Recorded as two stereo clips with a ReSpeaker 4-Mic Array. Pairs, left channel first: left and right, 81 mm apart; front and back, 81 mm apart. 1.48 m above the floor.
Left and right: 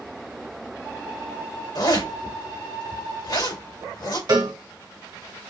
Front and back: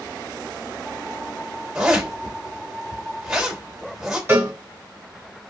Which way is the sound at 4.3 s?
115° right.